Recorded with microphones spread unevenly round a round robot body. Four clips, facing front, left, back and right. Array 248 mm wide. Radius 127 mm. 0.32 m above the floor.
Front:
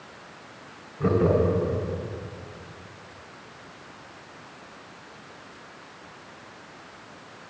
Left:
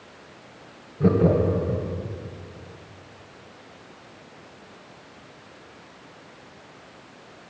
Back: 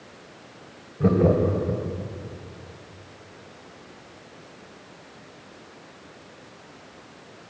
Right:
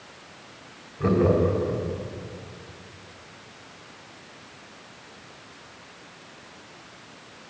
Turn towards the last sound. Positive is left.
turn(degrees=140)